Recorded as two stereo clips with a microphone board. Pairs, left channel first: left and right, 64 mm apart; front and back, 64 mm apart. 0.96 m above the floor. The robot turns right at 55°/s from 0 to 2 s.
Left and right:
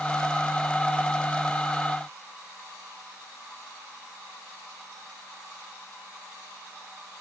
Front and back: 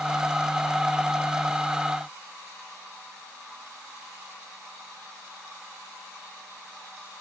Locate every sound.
Only background noise.